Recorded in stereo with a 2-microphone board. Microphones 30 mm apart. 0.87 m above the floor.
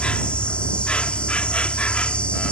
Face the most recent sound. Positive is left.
turn(degrees=35)  # may be behind; listen again after turning